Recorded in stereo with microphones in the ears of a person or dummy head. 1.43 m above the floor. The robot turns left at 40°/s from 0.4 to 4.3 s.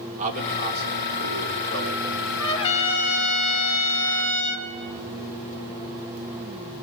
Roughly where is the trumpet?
Behind left.